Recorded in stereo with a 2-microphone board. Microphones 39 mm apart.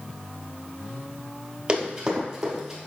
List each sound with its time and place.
1.7 s running footsteps: 25° right (ahead or behind), 1.8 m; by 2.8 s 10° right (ahead or behind), 1.8 m